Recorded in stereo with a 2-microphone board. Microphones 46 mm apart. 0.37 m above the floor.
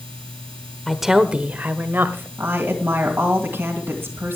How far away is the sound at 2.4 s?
About 2 m.